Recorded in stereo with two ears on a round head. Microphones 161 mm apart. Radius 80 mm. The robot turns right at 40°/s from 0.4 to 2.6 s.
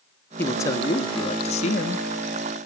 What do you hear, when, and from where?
0.4 s a man speaking: 15° left, 0.6 m; by 2.0 s 85° left, 0.6 m